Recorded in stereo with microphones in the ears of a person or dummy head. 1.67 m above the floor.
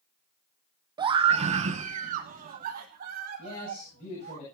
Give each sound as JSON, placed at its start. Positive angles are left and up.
{"t": 1.0, "sound": "a scream", "side_deg": -30, "distance_m": 0.8}
{"t": 3.4, "sound": "a man speaking", "side_deg": 35, "distance_m": 9.5}